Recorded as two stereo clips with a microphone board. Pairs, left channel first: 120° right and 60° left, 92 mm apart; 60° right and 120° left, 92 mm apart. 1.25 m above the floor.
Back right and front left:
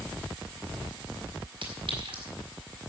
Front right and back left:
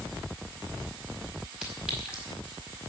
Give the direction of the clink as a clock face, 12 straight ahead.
11 o'clock.